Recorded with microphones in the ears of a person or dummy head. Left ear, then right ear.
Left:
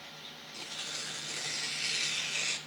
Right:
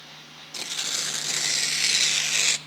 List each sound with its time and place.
0.5 s tearing paper: 65° right (ahead or behind), 0.5 m